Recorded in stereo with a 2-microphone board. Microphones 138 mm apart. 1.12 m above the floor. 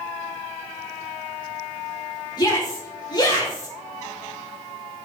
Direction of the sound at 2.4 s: 30° left (ahead or behind).